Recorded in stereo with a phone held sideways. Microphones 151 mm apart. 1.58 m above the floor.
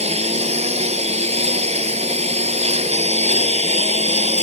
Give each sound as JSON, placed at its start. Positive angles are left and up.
{"t": 0.0, "sound": "a lawn mower", "side_deg": -45}